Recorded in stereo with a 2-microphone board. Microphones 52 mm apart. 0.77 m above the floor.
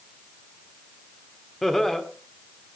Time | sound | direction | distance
1.6 | laughter | 5° left (ahead or behind) | 2.5 m